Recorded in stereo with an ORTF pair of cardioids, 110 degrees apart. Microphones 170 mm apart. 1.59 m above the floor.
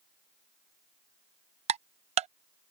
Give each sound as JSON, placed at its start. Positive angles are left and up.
{"t": 1.7, "sound": "ticking", "azimuth_deg": -40}